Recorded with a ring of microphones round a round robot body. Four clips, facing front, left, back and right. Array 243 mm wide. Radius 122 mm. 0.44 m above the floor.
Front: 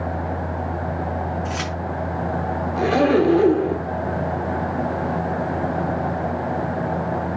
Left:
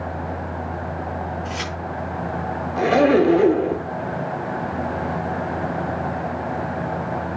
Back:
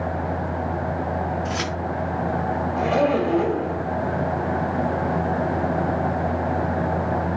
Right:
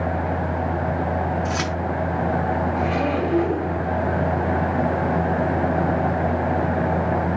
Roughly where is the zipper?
Ahead left.